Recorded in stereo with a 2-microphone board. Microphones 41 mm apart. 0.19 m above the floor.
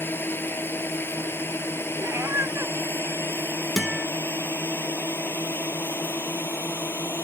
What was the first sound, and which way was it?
A drone, 60° left (ahead or behind).